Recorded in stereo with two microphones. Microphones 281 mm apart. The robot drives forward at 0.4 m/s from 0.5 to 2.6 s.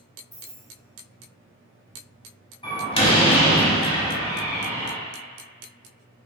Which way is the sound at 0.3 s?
20° left (ahead or behind).